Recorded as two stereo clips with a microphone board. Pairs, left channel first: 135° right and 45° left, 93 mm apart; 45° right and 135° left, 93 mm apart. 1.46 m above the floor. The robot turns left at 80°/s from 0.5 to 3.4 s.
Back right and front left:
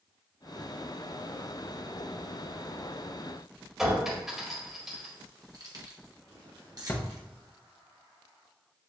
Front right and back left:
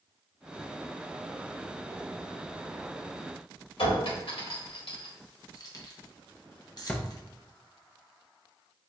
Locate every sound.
3.8 s a clink: 40° right, 1.5 m
5.5 s keys jangling: straight ahead, 0.9 m
6.9 s a drawer: 110° right, 0.5 m